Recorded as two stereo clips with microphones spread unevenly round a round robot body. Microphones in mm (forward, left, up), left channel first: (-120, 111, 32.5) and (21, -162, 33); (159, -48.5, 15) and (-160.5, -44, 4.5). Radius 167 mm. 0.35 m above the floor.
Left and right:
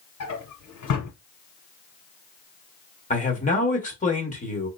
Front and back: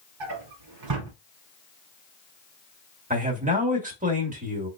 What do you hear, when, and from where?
0.2 s a drawer: 155° left, 1.7 m
3.1 s a man speaking: 150° left, 1.6 m